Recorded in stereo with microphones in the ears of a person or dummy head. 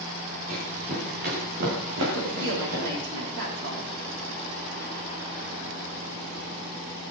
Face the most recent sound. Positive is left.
turn(degrees=-75)  # may be behind; listen again after turning